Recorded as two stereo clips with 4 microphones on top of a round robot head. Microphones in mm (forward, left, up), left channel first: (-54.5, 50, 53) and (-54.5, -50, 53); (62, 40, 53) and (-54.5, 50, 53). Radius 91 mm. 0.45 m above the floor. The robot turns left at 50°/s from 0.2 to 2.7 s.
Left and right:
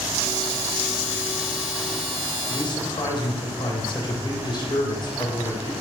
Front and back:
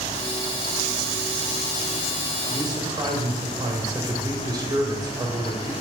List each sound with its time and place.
2.5 s a man speaking: 135° left, 2.5 m; by 5.7 s 125° left, 2.5 m